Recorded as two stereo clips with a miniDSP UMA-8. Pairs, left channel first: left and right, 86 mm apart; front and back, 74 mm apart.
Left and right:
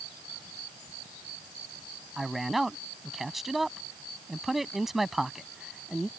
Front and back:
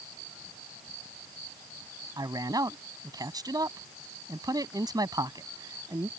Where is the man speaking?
Straight behind.